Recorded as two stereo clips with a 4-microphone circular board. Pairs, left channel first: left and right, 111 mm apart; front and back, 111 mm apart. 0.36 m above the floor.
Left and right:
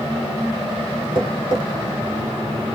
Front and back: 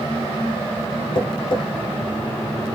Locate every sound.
1.1 s tapping: 45° right, 1.4 m